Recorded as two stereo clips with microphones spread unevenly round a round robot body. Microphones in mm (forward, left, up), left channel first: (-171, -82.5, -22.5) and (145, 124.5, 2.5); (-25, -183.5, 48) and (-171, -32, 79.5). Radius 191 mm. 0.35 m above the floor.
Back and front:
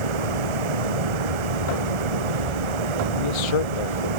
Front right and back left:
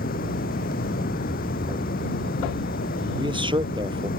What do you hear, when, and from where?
0.0 s running water: 20° left
3.2 s a man speaking: 160° right